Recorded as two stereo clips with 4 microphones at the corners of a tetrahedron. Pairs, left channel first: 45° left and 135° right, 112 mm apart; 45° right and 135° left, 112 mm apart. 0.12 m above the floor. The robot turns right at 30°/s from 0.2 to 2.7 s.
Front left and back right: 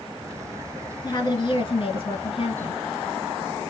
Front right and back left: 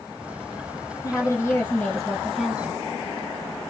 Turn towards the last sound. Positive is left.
turn(degrees=60)